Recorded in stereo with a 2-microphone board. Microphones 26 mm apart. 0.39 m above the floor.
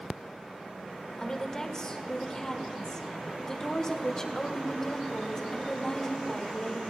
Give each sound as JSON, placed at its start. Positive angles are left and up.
{"t": 1.2, "sound": "a woman speaking", "side_deg": 25, "distance_m": 1.5}